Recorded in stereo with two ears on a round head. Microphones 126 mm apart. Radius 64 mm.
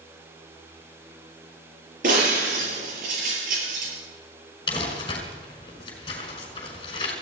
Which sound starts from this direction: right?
Breaking glass, at 2.0 s.